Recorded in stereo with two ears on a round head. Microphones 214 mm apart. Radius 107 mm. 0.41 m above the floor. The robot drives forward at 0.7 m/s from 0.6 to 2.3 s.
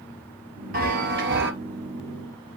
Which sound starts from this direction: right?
A chime, at 0.7 s.